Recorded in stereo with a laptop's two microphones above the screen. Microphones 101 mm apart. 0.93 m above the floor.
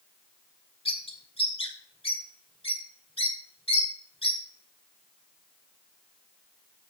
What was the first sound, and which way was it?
A bird, 70° left (ahead or behind).